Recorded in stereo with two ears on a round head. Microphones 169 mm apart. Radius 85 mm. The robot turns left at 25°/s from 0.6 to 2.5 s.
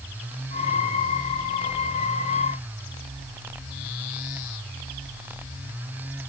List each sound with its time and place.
Only background noise.